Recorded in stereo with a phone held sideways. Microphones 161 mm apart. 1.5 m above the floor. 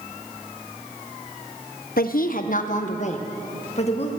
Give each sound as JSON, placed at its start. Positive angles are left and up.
{"t": 2.0, "sound": "a woman speaking", "side_deg": 65, "distance_m": 0.8}